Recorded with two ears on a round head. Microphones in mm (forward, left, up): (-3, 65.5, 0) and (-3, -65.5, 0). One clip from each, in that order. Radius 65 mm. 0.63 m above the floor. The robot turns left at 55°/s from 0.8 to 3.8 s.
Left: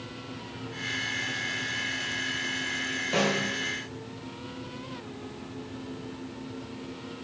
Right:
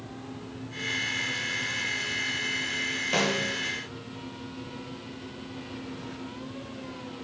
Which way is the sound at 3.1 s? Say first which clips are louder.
Even; 20° right (ahead or behind).